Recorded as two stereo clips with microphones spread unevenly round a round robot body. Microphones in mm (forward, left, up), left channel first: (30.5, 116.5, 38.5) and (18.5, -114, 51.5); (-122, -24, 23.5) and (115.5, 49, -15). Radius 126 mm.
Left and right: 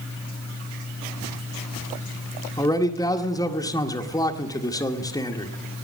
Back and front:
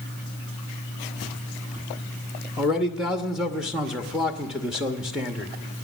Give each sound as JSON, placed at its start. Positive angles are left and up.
{"t": 2.6, "sound": "a man speaking", "azimuth_deg": 70, "distance_m": 0.9}